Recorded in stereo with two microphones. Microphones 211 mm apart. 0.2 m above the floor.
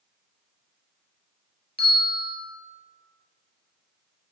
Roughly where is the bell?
Right.